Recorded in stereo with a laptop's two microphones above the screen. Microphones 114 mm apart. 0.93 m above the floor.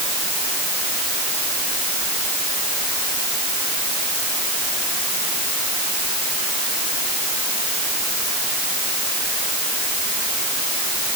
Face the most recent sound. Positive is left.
No sound to turn to.